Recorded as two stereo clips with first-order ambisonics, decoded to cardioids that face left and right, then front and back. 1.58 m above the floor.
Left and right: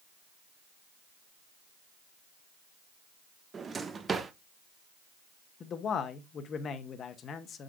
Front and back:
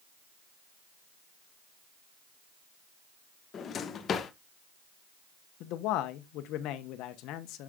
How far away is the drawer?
About 0.7 m.